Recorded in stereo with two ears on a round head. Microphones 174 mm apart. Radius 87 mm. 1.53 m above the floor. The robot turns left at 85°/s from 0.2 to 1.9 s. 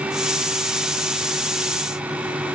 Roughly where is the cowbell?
No cowbell in this recording.